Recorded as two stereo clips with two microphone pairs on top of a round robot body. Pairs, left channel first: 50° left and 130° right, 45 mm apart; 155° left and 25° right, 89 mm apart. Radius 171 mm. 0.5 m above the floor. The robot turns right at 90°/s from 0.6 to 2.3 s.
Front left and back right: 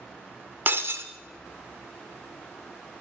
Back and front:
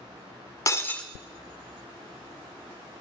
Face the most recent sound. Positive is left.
turn(degrees=-20)